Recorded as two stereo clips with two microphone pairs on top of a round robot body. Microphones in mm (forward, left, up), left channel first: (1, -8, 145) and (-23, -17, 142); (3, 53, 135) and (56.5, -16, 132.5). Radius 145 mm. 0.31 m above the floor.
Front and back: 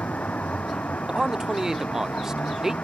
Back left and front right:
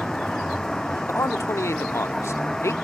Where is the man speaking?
155° left.